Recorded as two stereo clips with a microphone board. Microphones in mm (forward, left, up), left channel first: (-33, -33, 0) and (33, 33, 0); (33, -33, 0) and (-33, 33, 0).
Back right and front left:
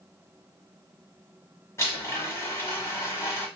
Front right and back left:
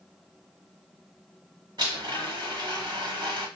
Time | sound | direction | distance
1.8 | a blender | 170° left | 1.3 m